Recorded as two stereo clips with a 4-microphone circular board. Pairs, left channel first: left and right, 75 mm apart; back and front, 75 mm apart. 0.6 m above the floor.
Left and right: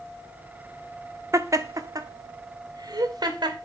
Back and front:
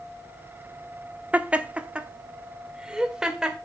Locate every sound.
1.3 s laughter: 65° right, 0.8 m; by 3.6 s 80° right, 1.8 m